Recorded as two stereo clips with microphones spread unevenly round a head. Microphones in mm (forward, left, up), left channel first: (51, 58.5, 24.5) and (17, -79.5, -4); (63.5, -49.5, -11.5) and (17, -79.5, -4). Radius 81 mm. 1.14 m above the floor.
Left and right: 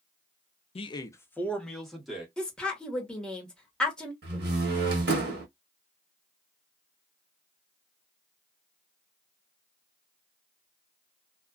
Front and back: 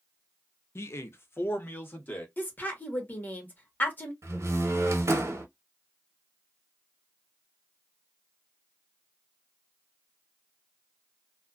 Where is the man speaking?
25° left, 0.5 m; by 2.3 s 20° right, 1.5 m.